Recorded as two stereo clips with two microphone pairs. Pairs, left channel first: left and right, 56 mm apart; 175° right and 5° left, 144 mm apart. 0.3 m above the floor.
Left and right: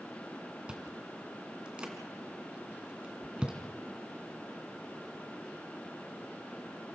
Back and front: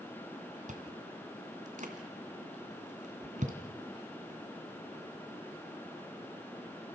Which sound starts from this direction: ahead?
Chewing, at 0.7 s.